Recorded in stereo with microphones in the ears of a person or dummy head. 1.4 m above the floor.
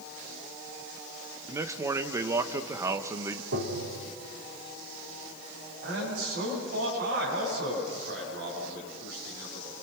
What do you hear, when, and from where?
1.5 s a man speaking: 20° right (ahead or behind), 0.9 m
3.5 s tapping: 90° right, 4 m
5.8 s a man speaking: 65° right (ahead or behind), 8.5 m